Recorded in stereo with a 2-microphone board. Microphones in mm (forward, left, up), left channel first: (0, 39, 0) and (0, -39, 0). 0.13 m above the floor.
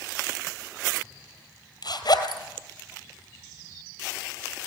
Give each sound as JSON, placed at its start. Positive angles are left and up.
{"t": 1.8, "sound": "a zipper", "side_deg": 60, "distance_m": 2.0}